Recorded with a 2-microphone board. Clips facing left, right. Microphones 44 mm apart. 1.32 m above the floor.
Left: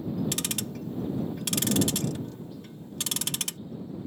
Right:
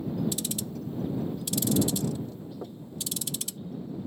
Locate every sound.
0.3 s ticking: 65° left (ahead or behind)
2.6 s knocking: 75° right (ahead or behind)